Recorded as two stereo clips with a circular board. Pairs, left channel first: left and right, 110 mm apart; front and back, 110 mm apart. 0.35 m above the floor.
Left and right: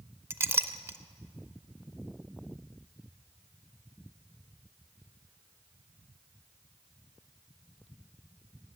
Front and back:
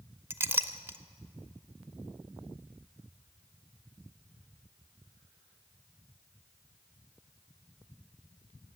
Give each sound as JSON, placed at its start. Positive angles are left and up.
{"t": 0.3, "sound": "a clink", "azimuth_deg": -130, "distance_m": 0.5}